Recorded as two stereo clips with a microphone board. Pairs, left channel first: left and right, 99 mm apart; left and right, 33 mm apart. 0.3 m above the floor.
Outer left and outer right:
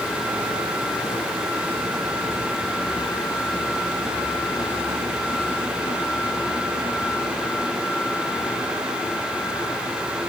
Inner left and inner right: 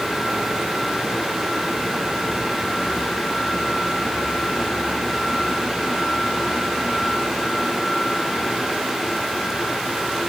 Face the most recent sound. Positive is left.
No sound to turn to.